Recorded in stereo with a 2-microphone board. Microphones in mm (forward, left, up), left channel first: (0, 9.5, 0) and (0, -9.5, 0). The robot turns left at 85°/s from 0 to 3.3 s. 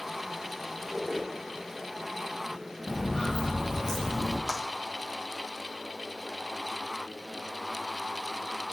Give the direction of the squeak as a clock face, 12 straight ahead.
11 o'clock.